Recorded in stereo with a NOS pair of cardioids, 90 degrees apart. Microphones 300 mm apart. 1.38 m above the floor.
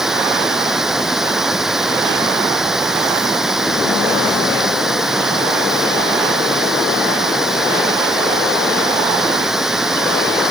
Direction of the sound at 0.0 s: Straight ahead.